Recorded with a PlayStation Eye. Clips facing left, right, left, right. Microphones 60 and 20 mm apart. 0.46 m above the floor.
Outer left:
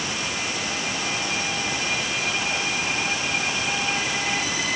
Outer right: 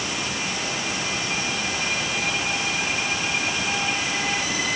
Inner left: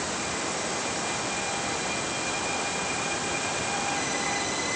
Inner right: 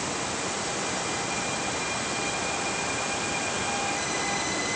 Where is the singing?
I don't hear singing.